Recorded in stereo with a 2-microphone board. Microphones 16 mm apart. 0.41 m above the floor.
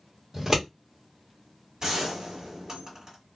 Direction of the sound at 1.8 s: 50° right (ahead or behind).